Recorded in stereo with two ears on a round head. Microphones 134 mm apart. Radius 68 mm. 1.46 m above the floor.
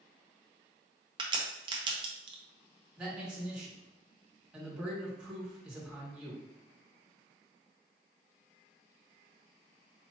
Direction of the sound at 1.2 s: 35° right (ahead or behind).